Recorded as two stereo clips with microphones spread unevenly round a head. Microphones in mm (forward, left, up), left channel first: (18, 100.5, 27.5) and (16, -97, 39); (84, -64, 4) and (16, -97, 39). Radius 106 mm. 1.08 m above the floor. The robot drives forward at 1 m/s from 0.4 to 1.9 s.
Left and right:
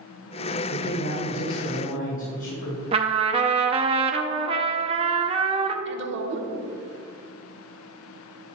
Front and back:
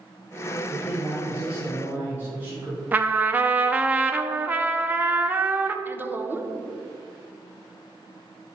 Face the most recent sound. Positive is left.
turn(degrees=-80)